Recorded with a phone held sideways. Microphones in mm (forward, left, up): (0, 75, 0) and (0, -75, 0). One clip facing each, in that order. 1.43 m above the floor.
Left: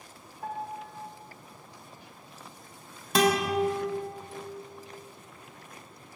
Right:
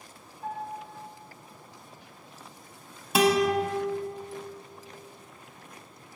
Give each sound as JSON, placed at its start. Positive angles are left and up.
{"t": 0.4, "sound": "a piano", "side_deg": 60, "distance_m": 0.8}
{"t": 3.1, "sound": "a guitar", "side_deg": -5, "distance_m": 0.9}